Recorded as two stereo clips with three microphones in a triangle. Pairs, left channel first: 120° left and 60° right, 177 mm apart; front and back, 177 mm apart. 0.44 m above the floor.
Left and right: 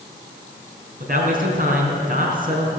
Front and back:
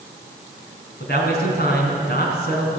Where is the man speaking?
25° right, 3.5 m.